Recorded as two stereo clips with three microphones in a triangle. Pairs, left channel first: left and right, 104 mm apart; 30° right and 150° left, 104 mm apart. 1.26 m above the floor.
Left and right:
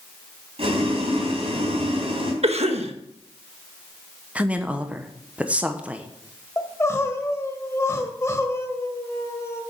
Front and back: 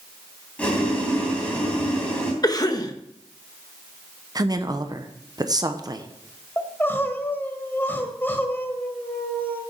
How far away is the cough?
About 1.3 m.